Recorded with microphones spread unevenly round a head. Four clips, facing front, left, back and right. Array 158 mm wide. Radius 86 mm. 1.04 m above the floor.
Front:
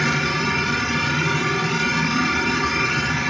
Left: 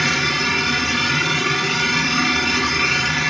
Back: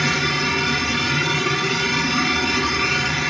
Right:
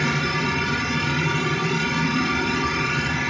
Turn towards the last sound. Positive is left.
turn(degrees=85)